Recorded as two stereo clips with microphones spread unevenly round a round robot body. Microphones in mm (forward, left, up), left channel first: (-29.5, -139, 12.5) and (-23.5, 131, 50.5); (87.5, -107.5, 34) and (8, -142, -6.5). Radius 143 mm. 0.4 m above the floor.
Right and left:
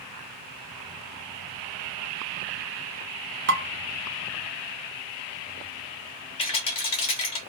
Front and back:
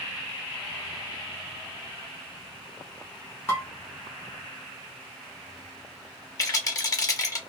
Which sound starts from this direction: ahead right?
A rattle, at 6.4 s.